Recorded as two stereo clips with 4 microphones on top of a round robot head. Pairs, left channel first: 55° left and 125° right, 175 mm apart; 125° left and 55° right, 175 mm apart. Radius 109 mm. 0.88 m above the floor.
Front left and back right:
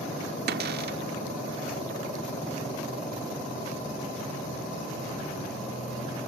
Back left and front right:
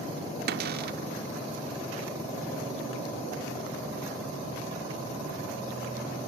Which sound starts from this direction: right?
A cupboard door, at 0.5 s.